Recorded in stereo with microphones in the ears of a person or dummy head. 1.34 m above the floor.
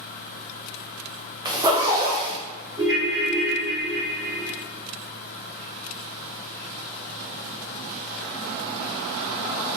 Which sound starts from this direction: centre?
A ringtone, at 2.8 s.